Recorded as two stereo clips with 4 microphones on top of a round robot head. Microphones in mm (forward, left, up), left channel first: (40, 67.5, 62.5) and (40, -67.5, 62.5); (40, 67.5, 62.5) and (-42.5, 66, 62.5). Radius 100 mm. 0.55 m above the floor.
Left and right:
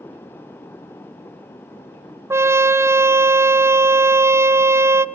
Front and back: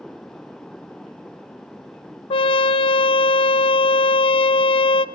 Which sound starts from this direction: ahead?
A trumpet, at 2.3 s.